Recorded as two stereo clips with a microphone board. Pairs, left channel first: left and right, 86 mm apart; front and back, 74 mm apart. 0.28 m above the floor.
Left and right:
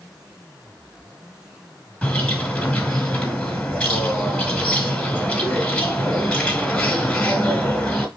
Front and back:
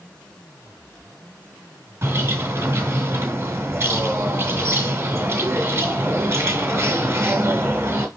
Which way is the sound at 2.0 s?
160° left.